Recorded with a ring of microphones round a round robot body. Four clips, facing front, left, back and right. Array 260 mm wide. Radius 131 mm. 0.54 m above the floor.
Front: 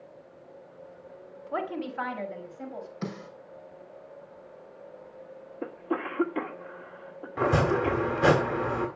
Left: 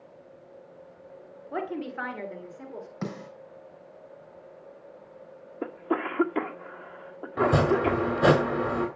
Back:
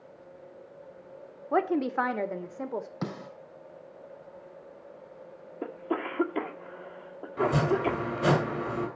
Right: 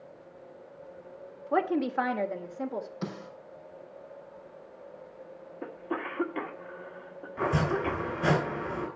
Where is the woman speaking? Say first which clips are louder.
Right 6 dB, back 6 dB; 150° right, 1.6 m; by 2.9 s 155° right, 2 m.